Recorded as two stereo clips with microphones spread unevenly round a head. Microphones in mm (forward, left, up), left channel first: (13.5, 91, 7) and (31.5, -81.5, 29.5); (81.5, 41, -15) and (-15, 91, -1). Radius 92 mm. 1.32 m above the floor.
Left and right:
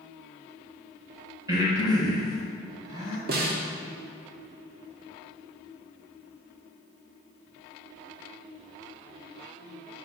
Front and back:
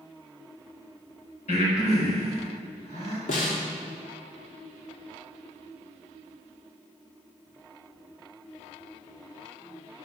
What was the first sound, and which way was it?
Breathing, 15° right.